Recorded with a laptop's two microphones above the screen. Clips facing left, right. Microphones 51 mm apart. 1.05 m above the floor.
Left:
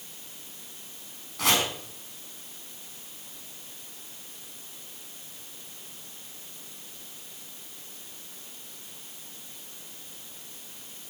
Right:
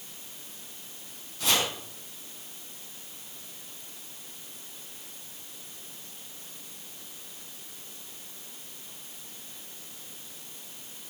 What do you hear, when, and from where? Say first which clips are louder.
1.4 s chopping: left 2 dB; 85° left, 5 m